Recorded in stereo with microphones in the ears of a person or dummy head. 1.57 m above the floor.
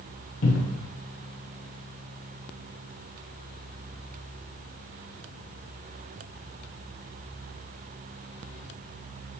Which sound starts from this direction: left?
A cupboard door, at 0.4 s.